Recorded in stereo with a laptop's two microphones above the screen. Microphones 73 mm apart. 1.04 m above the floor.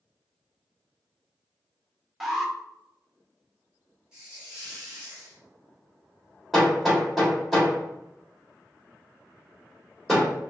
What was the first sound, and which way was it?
An alarm, 5° right (ahead or behind).